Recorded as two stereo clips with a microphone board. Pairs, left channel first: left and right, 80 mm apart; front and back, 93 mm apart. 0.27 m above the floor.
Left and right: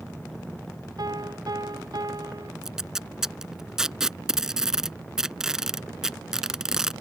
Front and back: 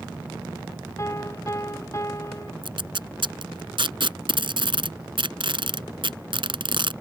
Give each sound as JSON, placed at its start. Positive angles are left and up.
{"t": 1.0, "sound": "a piano", "azimuth_deg": -55}
{"t": 2.6, "sound": "tape being pulled", "azimuth_deg": -170}